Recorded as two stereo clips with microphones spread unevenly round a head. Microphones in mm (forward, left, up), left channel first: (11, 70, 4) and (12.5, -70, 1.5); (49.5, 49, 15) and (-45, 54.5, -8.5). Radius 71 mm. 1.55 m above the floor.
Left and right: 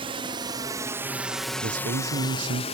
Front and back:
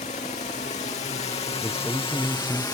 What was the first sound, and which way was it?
A drone, 40° right.